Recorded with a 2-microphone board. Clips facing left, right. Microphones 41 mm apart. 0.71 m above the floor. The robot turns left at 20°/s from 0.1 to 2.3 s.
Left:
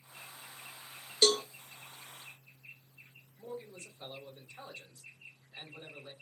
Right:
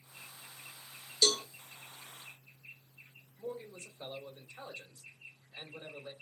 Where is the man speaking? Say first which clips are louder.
Right 2 dB; 25° right (ahead or behind), 3 m.